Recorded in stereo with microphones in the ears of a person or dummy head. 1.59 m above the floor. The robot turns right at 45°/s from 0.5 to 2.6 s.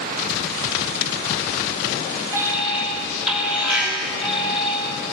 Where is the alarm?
15° right (ahead or behind), 6.5 m; by 5.1 s centre (ahead or behind), 6.5 m.